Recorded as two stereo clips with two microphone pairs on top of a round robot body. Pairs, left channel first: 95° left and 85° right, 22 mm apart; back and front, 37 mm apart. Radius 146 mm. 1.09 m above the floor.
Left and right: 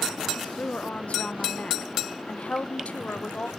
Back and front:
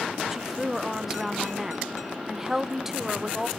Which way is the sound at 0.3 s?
70° left.